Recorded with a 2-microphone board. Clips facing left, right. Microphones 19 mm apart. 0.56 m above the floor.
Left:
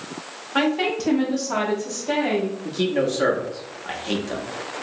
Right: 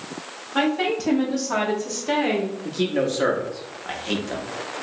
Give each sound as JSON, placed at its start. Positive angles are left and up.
{"t": 0.6, "sound": "a woman speaking", "side_deg": 25, "distance_m": 1.0}
{"t": 2.6, "sound": "a man speaking", "side_deg": 0, "distance_m": 0.7}